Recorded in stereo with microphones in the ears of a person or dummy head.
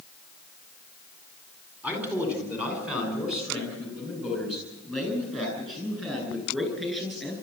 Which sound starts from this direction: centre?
A man speaking, at 1.8 s.